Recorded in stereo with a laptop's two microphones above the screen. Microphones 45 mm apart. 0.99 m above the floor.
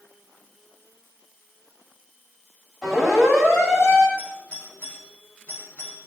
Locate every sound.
2.8 s a siren: centre (ahead or behind), 7.5 m; by 4.1 s 5° right (ahead or behind), 7.5 m
4.2 s a doorbell: 30° left (ahead or behind), 5.5 m